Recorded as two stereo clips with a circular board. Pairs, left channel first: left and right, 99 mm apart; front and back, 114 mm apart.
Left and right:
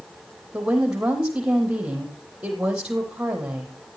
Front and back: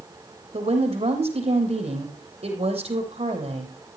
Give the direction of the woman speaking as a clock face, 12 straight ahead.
6 o'clock.